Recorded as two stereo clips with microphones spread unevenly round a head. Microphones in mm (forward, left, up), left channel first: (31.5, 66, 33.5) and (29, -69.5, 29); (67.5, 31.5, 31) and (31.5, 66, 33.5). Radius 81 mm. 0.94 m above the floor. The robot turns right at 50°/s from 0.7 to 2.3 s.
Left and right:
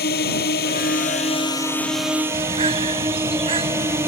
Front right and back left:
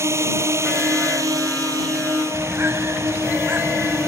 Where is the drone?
115° left; by 4.1 s 165° right.